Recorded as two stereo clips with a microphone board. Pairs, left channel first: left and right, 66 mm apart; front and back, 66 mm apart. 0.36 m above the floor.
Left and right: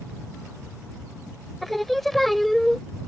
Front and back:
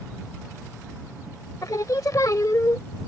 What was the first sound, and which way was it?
Singing, 5° left.